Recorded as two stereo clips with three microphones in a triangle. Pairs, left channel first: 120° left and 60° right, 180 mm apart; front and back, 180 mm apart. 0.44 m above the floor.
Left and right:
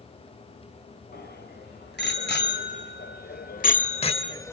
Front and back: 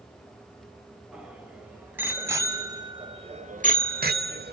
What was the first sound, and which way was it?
A bicycle bell, 95° left.